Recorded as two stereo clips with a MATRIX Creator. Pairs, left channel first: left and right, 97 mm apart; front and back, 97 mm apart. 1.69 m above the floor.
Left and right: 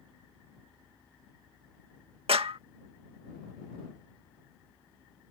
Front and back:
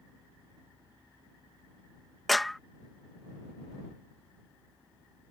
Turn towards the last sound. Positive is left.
turn(degrees=-90)